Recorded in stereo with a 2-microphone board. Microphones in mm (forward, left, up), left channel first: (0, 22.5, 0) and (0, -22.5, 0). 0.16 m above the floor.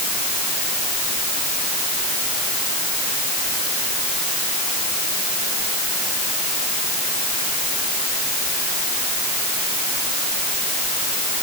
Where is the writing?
No writing in this recording.